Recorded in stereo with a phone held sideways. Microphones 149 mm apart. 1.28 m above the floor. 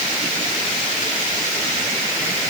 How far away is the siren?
No siren in this recording.